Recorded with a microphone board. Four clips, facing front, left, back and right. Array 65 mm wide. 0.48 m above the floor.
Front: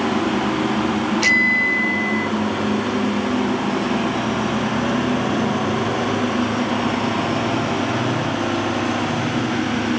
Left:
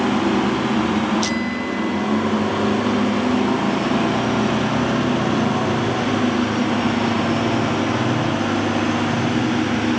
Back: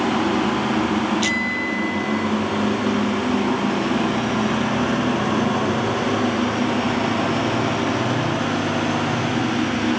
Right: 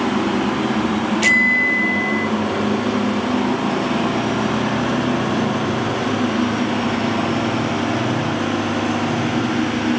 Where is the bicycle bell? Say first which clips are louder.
Right 7 dB, front 5 dB; 50° right.